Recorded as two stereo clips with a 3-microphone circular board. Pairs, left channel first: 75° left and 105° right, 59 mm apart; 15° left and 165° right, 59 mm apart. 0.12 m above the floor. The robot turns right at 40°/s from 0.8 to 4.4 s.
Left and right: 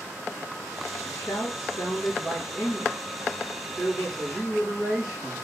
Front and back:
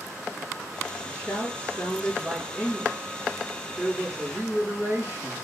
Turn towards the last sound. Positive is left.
turn(degrees=-170)